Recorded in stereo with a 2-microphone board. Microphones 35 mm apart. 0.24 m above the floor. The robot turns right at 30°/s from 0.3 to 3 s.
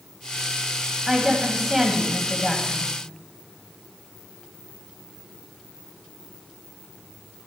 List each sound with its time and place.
1.1 s a woman speaking: 10° right (ahead or behind), 1.6 m; by 2.9 s 10° left (ahead or behind), 1.6 m